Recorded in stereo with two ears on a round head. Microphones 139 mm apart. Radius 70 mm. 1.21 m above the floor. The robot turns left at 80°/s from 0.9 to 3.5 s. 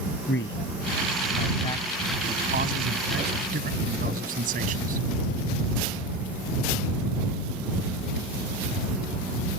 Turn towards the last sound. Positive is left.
turn(degrees=-60)  # may be behind; listen again after turning